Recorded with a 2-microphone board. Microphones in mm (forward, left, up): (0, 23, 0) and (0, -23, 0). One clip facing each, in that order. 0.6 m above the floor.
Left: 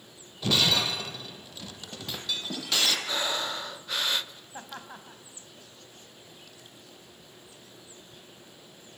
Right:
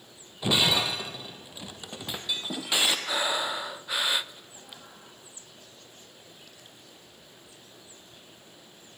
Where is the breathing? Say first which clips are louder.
Right 2 dB; 15° right (ahead or behind), 0.5 m.